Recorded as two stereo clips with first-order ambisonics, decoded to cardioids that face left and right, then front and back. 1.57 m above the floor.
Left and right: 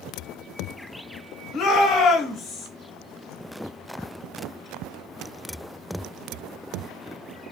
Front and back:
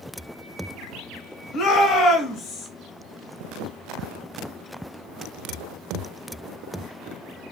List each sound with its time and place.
1.5 s a shout: 45° left, 0.8 m